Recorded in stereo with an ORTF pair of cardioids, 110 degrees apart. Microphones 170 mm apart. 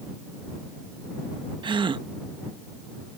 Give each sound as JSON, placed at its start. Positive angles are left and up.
{"t": 1.6, "sound": "a gasp", "azimuth_deg": -25}